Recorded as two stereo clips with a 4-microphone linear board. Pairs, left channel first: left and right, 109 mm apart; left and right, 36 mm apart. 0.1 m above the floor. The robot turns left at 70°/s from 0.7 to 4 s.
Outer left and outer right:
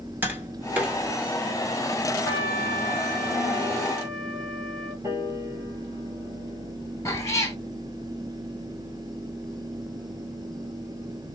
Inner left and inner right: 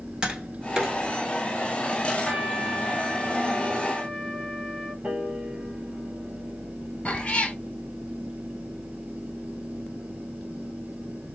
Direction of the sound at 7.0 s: 30° left (ahead or behind).